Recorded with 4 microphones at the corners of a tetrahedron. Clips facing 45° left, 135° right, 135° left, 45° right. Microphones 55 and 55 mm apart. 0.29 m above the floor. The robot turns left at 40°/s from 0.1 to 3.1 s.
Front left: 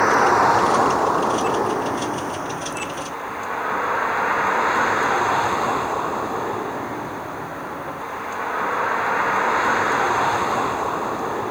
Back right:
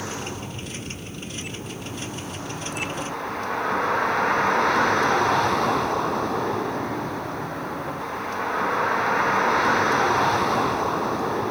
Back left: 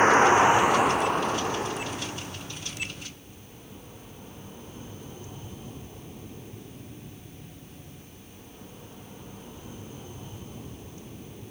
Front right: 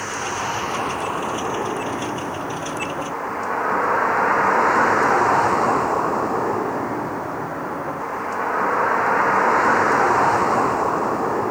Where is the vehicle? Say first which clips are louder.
Front left 18 dB, back left 8 dB; 80° left; by 11.5 s 40° right.